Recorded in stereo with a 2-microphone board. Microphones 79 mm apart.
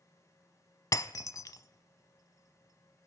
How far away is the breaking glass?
About 0.6 m.